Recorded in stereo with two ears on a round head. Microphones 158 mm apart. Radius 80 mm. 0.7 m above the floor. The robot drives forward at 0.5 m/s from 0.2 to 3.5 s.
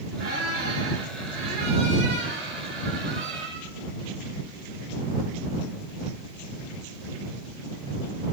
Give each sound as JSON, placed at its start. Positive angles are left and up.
{"t": 0.2, "sound": "a squeak", "side_deg": -50, "distance_m": 5.5}